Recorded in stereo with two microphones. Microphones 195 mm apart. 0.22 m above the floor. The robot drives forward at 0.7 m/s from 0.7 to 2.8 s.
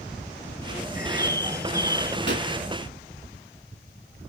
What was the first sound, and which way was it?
A bird, 50° left (ahead or behind).